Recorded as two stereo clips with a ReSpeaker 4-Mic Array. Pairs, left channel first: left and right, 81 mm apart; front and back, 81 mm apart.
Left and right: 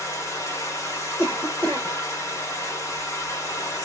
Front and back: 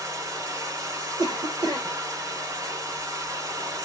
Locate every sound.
0.0 s running water: 140° left, 1.2 m
1.2 s a cough: 155° left, 1.5 m